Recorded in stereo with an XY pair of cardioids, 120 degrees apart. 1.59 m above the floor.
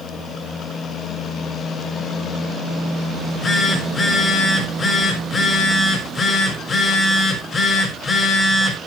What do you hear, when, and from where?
3.1 s a phone buzzing: 40° left, 6 m